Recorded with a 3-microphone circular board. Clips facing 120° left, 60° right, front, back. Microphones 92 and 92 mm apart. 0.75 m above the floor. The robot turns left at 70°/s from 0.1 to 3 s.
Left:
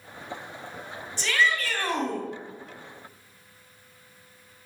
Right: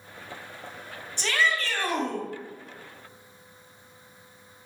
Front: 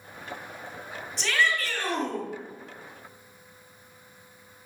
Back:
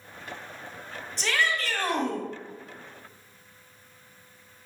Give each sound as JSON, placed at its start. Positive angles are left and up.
{"t": 1.2, "sound": "a shout", "azimuth_deg": -90, "distance_m": 1.4}